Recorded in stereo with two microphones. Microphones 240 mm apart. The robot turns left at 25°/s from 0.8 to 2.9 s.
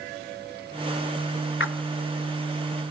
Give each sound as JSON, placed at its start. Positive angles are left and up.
{"t": 1.6, "sound": "a splash", "side_deg": 55, "distance_m": 0.8}